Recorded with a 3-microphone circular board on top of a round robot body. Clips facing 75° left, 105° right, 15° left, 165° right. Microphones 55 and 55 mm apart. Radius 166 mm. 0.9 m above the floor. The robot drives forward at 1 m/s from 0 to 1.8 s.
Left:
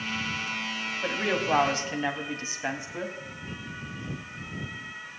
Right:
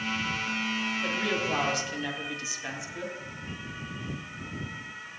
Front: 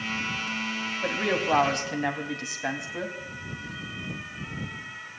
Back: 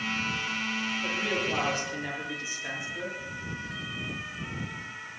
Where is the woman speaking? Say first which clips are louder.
Left 5 dB, front 6 dB; 20° left, 3 m; by 3.2 s 30° left, 2 m.